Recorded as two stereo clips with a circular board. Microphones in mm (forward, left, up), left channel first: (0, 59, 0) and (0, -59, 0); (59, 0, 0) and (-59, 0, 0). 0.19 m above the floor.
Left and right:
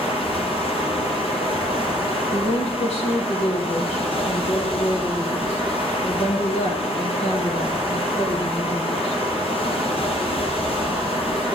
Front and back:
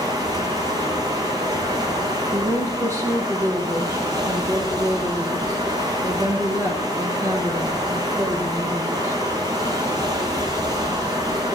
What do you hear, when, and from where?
0.0 s running water: 125° left, 4.5 m
2.3 s a woman speaking: 115° left, 7 m